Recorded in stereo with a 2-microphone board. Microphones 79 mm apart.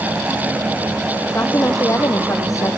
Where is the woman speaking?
35° left (ahead or behind); by 2.8 s 45° left (ahead or behind).